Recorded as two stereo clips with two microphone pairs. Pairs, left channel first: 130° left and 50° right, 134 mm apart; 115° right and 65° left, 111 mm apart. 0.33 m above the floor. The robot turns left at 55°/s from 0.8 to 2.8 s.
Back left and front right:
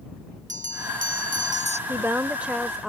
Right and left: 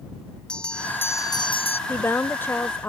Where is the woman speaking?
90° right; by 2.9 s 140° right.